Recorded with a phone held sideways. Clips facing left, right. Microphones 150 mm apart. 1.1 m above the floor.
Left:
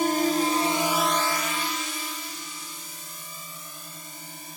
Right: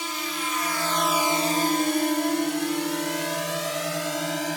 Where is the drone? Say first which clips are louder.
Left 10 dB; 50° left (ahead or behind); by 4.6 s 85° right.